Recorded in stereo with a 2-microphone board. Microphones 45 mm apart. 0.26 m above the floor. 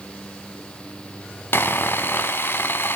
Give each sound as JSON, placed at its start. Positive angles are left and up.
{"t": 1.5, "sound": "sawing", "side_deg": 55, "distance_m": 0.7}